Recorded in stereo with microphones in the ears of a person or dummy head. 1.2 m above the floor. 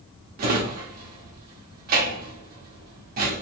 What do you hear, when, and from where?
0.4 s a drawer: 55° right (ahead or behind), 1.5 m